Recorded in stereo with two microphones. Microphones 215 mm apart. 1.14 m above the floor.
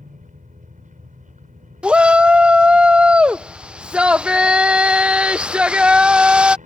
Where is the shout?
5° right (ahead or behind).